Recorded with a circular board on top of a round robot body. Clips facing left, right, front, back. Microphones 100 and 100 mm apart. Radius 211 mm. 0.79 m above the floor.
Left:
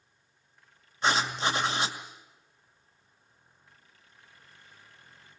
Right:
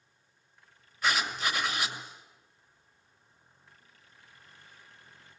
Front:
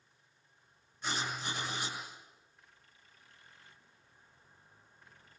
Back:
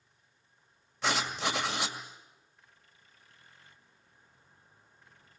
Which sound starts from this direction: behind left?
Writing, at 1.0 s.